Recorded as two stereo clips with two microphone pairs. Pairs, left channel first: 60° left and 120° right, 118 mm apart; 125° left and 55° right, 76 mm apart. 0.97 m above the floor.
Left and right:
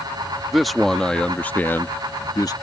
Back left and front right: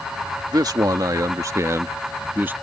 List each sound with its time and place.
0.5 s a man speaking: 30° right; by 2.5 s 5° left